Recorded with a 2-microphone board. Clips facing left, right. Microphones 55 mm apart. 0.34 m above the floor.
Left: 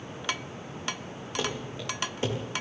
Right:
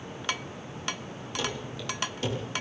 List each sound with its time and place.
1.4 s running footsteps: 30° left (ahead or behind), 6.5 m